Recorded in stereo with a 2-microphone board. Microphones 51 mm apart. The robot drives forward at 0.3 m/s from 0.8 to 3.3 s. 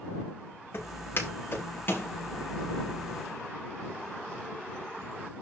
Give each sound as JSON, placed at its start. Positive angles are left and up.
{"t": 0.7, "sound": "footsteps", "side_deg": 45, "distance_m": 6.5}